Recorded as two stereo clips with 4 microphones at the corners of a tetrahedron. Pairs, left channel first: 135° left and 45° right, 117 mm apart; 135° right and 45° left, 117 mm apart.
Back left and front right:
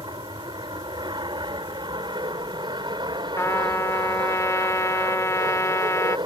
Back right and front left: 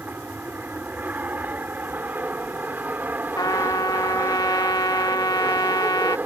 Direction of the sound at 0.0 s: 25° right.